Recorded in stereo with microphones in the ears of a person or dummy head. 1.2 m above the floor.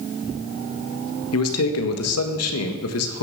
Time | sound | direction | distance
1.3 | a man speaking | 80° left | 1.4 m